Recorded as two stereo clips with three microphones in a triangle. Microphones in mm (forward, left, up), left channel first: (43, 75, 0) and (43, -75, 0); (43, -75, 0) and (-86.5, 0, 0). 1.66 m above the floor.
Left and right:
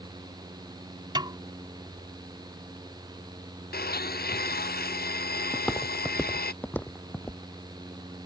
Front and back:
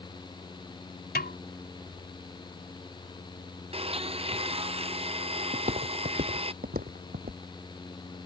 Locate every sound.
1.1 s a snare drum: 30° right
3.7 s a blender: 100° left
5.5 s footsteps: straight behind; by 7.4 s 165° left